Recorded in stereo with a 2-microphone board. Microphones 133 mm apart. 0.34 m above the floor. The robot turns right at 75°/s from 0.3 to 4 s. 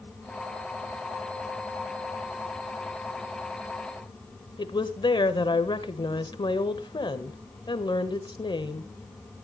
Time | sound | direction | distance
4.6 | a woman speaking | 35° left (ahead or behind) | 1.2 m